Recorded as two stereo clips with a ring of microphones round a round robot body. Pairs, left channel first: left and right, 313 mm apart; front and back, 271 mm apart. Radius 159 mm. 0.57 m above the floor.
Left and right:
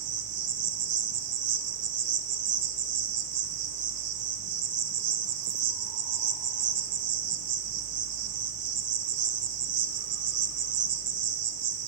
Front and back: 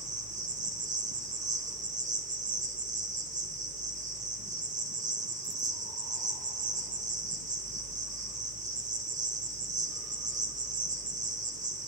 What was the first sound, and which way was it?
An insect, 115° right.